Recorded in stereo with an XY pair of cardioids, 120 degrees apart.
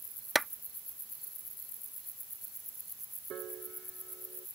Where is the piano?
55° right.